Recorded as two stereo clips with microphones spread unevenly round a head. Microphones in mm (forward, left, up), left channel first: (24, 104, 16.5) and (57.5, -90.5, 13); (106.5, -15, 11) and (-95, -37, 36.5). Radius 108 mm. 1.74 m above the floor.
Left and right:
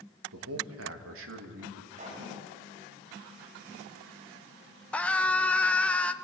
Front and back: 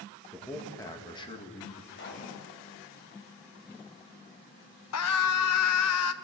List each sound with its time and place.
0.3 s a man speaking: 80° right, 3 m; by 1.8 s 50° right, 3.5 m
1.9 s a pop: 30° right, 9 m
4.9 s a scream: 15° left, 1.5 m